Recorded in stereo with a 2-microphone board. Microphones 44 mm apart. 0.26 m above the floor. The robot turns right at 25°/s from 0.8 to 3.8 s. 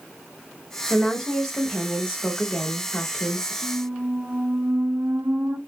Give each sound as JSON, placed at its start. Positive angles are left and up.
{"t": 0.9, "sound": "a woman speaking", "side_deg": -5, "distance_m": 1.0}
{"t": 3.6, "sound": "a squeak", "side_deg": -65, "distance_m": 0.8}